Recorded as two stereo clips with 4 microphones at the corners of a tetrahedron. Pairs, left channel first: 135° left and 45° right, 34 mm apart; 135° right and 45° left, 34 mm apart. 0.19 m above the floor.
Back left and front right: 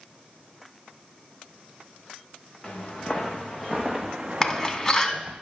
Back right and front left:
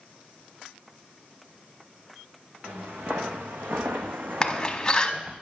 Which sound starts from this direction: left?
Footsteps, at 2.6 s.